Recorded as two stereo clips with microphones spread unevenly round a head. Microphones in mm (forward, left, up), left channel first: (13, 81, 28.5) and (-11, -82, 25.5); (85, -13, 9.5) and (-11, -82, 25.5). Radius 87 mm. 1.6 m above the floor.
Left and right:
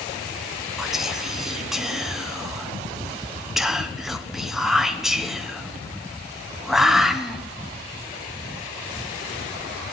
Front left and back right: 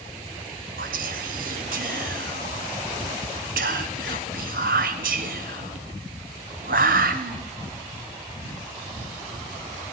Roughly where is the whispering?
Behind.